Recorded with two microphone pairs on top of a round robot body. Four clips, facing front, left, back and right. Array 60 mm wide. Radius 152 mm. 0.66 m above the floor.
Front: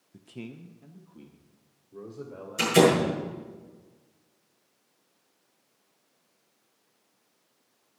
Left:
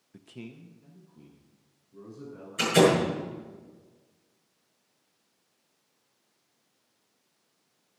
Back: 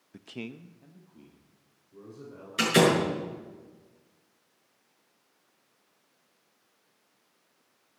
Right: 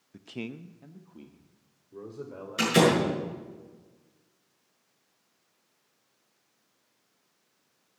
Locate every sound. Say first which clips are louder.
0.1 s a man speaking: right 6 dB, back 2 dB; 175° left, 0.6 m; by 3.6 s 70° right, 4 m
2.6 s a door slam: left 1 dB, front 2 dB; 155° right, 7.5 m